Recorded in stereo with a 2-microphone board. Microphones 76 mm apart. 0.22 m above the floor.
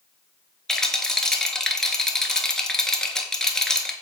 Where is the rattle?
5° left (ahead or behind), 0.6 m.